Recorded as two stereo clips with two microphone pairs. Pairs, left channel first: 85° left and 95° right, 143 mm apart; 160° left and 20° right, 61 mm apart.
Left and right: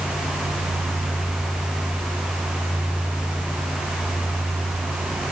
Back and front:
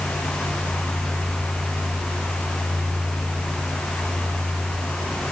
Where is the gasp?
I don't hear a gasp.